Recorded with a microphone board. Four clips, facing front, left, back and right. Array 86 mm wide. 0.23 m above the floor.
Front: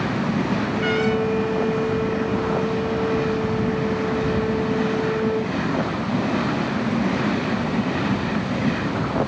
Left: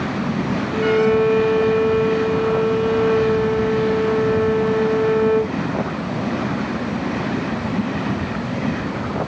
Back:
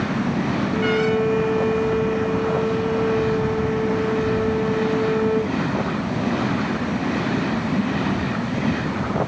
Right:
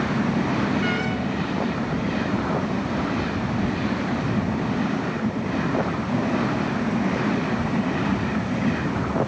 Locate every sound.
0.7 s a violin: 100° left